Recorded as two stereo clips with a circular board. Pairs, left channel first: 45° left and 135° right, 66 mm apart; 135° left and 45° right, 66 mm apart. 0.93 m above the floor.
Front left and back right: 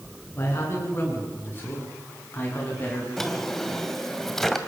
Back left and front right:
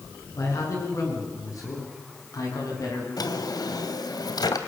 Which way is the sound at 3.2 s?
130° left.